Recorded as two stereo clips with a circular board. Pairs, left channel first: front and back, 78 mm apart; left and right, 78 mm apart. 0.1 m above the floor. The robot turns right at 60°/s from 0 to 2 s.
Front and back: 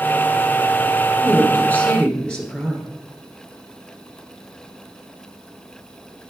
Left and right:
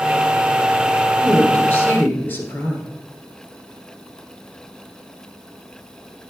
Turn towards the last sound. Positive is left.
turn(degrees=60)